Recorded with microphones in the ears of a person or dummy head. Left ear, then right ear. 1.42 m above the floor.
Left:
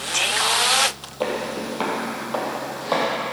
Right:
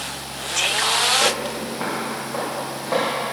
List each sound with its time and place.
1.2 s footsteps: 40° left (ahead or behind), 2.5 m; by 3.1 s 65° left (ahead or behind), 3.5 m